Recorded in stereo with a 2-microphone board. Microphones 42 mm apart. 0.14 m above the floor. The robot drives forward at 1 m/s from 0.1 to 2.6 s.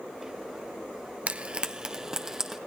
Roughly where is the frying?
Right.